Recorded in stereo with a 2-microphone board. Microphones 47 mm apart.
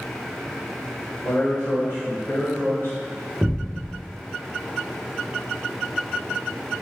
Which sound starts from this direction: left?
A man speaking, at 1.2 s.